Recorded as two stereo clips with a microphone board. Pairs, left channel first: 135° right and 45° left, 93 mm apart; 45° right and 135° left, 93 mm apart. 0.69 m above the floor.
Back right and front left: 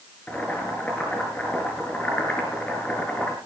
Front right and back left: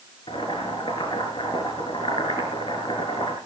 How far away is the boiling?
About 5.5 m.